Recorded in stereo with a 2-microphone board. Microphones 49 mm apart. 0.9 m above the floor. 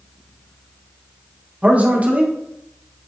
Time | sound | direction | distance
1.6 | a man speaking | 25° right (ahead or behind) | 0.9 m